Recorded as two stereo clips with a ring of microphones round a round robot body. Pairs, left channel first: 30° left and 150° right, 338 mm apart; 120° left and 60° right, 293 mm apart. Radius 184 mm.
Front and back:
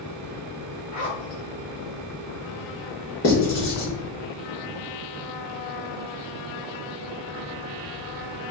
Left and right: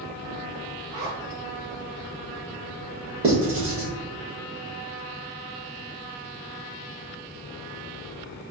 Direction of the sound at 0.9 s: 45° right.